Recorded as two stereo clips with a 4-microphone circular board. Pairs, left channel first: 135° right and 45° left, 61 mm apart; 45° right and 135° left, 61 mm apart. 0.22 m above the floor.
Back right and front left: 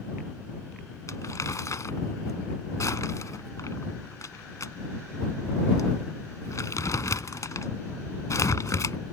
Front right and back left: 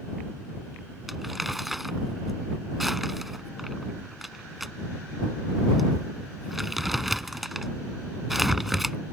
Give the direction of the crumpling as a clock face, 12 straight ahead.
5 o'clock.